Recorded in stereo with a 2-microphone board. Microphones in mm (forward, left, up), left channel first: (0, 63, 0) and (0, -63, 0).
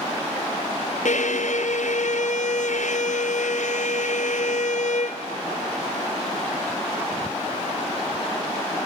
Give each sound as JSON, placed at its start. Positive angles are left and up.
{"t": 1.1, "sound": "a violin", "side_deg": 70, "distance_m": 0.9}